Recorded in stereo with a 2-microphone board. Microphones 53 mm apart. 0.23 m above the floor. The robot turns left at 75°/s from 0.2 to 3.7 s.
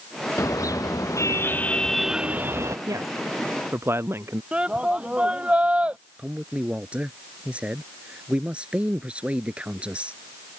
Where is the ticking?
No ticking in this recording.